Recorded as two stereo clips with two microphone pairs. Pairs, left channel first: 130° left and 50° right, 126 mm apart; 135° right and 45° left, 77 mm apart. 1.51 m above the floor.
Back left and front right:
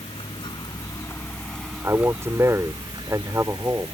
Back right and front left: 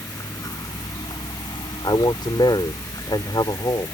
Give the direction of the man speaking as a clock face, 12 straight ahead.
4 o'clock.